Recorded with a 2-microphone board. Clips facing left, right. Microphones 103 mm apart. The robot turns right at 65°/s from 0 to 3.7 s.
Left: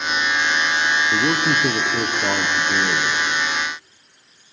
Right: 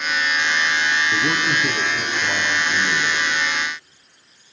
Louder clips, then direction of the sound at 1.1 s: Left 2 dB; 35° left.